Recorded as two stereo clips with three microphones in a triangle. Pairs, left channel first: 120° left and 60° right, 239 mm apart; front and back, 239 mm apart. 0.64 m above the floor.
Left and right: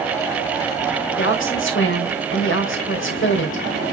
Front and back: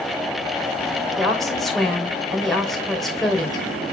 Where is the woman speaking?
90° left, 2.5 m.